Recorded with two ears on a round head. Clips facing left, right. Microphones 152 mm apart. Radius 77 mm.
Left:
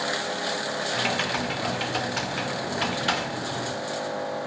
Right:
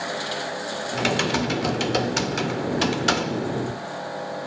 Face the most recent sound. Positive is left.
turn(degrees=-50)  # may be behind; listen again after turning